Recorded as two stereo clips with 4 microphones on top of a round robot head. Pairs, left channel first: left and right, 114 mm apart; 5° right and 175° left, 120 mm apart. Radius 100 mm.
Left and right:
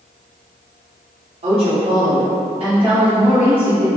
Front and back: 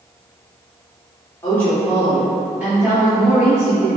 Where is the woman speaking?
75° right, 1.3 m; by 3.9 s 140° right, 1.9 m.